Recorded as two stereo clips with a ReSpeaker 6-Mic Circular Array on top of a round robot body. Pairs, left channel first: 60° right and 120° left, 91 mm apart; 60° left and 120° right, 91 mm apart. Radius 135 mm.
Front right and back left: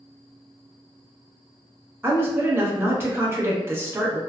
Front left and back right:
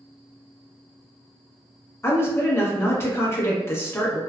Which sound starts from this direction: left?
A woman speaking, at 2.0 s.